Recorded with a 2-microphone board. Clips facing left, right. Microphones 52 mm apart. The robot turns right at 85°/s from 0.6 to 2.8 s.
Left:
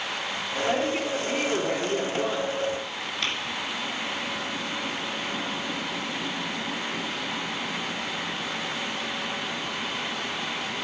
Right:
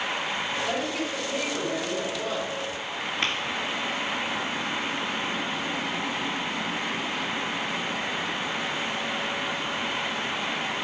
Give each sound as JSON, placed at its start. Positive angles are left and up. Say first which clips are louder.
{"t": 0.6, "sound": "a woman speaking", "louder": "left 3 dB", "azimuth_deg": 10, "distance_m": 3.5}
{"t": 3.2, "sound": "tapping", "louder": "right 2 dB", "side_deg": -30, "distance_m": 2.5}